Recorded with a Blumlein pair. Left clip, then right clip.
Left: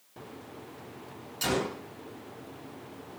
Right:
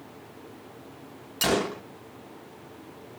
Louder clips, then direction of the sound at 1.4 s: Right 5 dB; 65° right.